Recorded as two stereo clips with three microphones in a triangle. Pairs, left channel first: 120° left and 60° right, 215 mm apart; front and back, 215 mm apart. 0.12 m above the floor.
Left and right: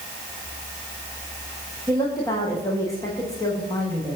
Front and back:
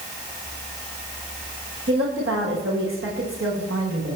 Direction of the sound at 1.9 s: 165° right.